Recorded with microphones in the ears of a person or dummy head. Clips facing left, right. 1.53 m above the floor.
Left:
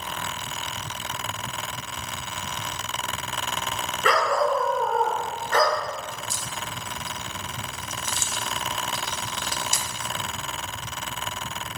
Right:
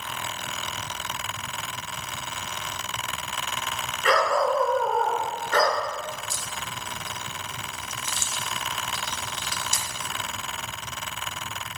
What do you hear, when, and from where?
4.0 s a dog barking: 80° left, 6 m; by 5.8 s 70° left (ahead or behind), 6.5 m
6.1 s a crack: 65° left (ahead or behind), 1.5 m